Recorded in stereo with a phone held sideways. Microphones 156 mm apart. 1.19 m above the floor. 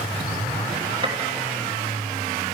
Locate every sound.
1.0 s a gunshot: 30° right (ahead or behind), 3 m